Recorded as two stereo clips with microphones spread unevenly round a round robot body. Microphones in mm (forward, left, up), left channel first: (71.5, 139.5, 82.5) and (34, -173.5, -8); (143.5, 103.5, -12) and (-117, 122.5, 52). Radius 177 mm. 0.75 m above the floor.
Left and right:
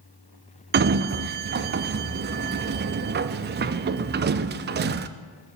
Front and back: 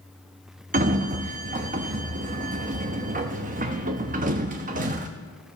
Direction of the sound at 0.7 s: 115° right.